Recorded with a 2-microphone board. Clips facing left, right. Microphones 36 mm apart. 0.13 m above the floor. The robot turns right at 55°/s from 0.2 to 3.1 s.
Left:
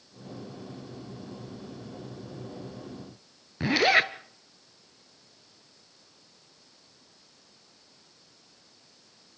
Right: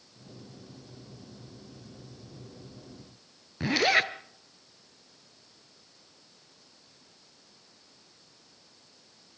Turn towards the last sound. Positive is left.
turn(degrees=10)  # may be behind; listen again after turning